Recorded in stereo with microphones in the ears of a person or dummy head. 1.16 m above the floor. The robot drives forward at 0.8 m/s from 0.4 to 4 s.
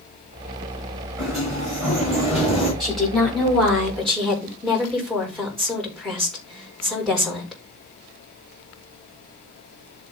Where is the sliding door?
20° right (ahead or behind), 5 m; by 2.7 s 15° right (ahead or behind), 6.5 m.